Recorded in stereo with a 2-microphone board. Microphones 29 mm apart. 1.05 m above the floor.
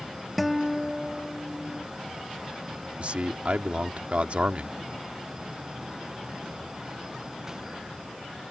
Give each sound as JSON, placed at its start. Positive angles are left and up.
{"t": 0.4, "sound": "a guitar", "side_deg": 0}
{"t": 3.0, "sound": "a man speaking", "side_deg": -45}